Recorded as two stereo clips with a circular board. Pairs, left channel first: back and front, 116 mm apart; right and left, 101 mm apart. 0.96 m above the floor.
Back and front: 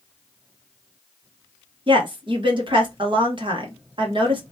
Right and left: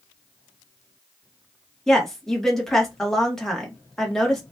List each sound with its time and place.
1.9 s a woman speaking: 5° right, 1.1 m